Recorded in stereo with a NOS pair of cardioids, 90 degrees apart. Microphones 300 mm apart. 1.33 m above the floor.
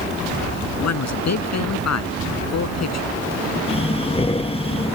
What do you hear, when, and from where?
0.8 s a man speaking: 60° left
3.7 s breathing: 20° left